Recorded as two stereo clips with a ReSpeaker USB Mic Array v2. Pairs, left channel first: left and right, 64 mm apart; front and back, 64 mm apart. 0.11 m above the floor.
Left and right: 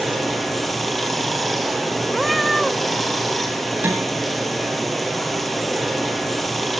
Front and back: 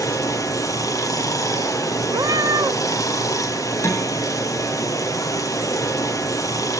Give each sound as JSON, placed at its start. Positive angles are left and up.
{"t": 0.0, "sound": "running water", "azimuth_deg": 0, "distance_m": 2.0}
{"t": 2.1, "sound": "a cat meowing", "azimuth_deg": 180, "distance_m": 1.0}
{"t": 3.8, "sound": "dishes clattering", "azimuth_deg": -35, "distance_m": 5.0}